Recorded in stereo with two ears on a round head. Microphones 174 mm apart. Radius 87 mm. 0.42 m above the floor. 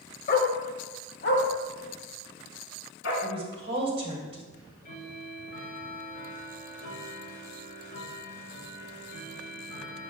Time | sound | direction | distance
0.3 | a dog barking | 40° left (ahead or behind) | 0.8 m
3.2 | a woman speaking | 30° right (ahead or behind) | 1.9 m
4.5 | ticking | 50° left (ahead or behind) | 3 m